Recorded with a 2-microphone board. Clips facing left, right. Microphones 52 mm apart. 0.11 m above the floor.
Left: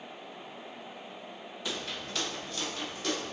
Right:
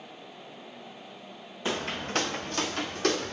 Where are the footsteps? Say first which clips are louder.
Right 7 dB; 35° right (ahead or behind), 0.5 m; by 3.3 s 60° right (ahead or behind), 1.5 m.